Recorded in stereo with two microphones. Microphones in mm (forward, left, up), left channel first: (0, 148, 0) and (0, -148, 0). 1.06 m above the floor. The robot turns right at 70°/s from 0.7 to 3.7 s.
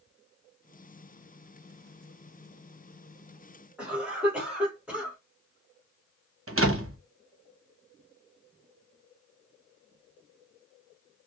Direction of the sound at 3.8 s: 5° right (ahead or behind).